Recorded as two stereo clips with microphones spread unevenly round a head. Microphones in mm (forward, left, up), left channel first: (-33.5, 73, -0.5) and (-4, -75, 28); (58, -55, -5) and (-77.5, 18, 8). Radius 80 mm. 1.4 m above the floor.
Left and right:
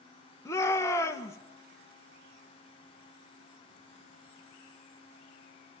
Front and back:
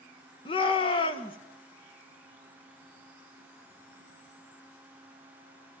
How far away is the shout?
About 1.8 m.